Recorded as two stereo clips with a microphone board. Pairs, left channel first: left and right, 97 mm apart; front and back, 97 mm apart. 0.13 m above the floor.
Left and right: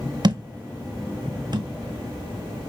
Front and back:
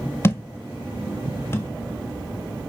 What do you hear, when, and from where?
0.2 s a thud: 60° right, 0.6 m